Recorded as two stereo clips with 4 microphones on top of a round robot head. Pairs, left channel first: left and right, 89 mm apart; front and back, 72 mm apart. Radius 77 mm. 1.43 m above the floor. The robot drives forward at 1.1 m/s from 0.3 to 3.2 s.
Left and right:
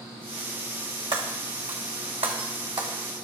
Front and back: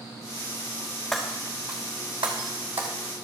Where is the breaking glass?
85° right, 1.7 m; by 2.9 s 145° right, 2.5 m.